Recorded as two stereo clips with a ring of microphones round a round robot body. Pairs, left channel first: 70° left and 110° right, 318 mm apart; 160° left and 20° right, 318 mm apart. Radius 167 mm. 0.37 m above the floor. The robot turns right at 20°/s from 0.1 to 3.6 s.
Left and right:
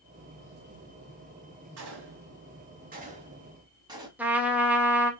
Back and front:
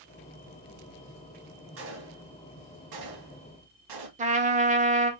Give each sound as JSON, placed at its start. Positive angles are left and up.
{"t": 1.8, "sound": "a gunshot", "azimuth_deg": -70, "distance_m": 1.6}
{"t": 4.2, "sound": "a trumpet", "azimuth_deg": -35, "distance_m": 1.1}